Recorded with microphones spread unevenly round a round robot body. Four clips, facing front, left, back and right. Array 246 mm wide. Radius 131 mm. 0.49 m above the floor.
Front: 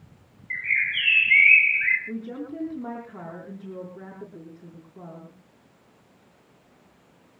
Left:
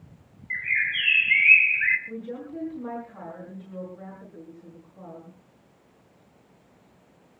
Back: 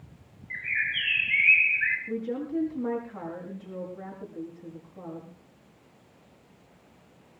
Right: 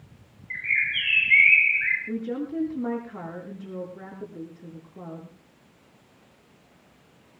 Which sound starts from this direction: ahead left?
A bird, at 0.5 s.